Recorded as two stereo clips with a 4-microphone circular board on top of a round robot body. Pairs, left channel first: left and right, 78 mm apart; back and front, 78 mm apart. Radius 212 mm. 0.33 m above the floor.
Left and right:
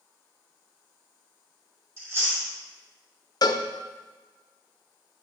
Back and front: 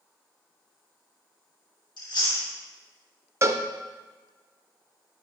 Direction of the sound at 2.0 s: 145° right.